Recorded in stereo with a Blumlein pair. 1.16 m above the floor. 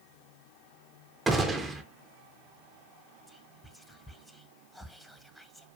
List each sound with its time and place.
1.3 s a gunshot: 15° right, 0.5 m
3.3 s whispering: straight ahead, 0.5 m